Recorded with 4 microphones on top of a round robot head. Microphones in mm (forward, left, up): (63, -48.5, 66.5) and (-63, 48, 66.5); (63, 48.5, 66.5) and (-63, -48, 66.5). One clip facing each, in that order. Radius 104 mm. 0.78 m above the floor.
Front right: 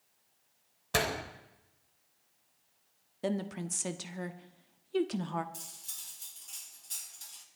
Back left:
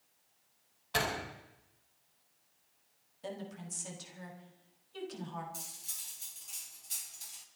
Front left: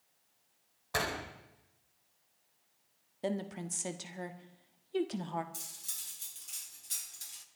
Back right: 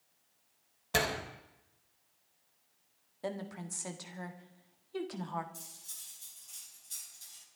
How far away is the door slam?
About 3.5 m.